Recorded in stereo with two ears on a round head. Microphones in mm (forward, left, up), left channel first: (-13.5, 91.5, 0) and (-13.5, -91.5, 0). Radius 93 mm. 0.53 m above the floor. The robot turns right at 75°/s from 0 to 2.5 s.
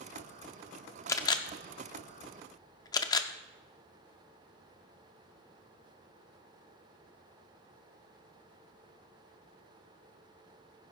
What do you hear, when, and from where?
1.1 s a camera shutter: 15° left (ahead or behind), 0.7 m; by 3.3 s 20° left (ahead or behind), 0.7 m